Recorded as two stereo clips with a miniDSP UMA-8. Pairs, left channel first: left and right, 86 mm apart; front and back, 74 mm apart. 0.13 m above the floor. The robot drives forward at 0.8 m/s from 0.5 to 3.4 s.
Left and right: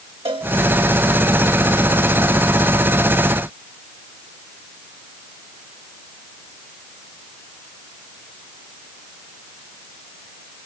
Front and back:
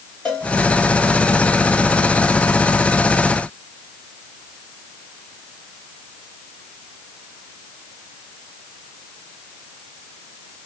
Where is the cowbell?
75° right, 4 m.